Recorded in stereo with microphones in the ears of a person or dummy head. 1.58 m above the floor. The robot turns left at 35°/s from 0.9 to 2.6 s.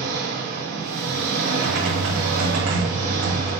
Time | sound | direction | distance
0.0 | an engine running | 70° right | 4 m
1.6 | typing on a keyboard | 75° right | 3 m